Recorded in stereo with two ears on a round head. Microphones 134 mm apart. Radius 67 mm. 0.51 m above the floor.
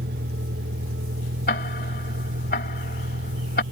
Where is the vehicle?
70° right (ahead or behind); by 3.7 s 85° right.